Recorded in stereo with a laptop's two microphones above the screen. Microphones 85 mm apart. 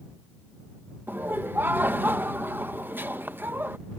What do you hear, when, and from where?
1.1 s laughter: 25° right (ahead or behind)